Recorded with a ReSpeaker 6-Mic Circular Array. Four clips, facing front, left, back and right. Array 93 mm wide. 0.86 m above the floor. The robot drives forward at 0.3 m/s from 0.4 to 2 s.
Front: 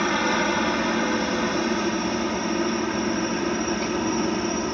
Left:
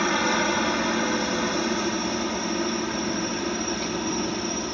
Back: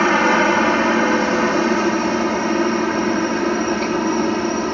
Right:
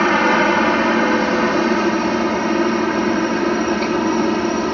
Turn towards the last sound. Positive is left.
turn(degrees=-125)